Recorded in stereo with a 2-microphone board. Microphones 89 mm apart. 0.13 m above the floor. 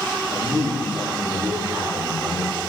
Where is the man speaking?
35° right (ahead or behind), 9.5 m.